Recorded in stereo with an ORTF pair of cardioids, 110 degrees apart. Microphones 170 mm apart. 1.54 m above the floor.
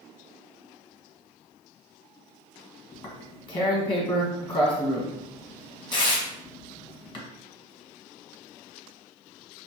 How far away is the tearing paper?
About 1.3 m.